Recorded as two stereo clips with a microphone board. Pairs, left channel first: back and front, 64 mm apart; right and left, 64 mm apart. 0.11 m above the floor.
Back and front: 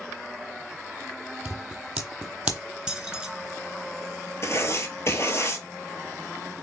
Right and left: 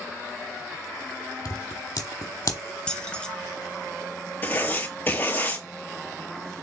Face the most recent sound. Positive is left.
turn(degrees=-145)